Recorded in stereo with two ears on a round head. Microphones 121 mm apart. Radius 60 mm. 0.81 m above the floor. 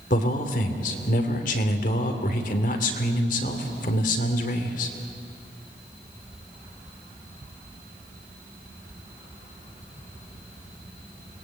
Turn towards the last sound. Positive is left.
turn(degrees=65)  # may be behind; listen again after turning